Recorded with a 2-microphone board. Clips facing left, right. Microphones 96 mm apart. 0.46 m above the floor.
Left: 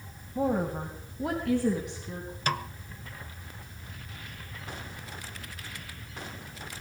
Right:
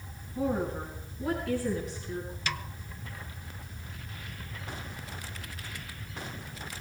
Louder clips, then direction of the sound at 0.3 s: Left 2 dB; 45° left (ahead or behind).